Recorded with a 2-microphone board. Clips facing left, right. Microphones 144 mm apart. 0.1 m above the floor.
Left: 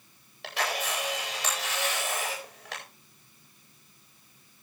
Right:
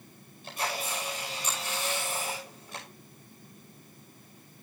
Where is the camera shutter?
70° left (ahead or behind), 9.5 m.